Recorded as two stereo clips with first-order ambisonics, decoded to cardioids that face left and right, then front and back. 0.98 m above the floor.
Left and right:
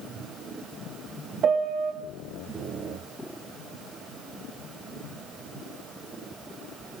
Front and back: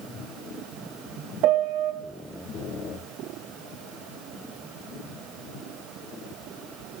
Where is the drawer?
I don't hear a drawer.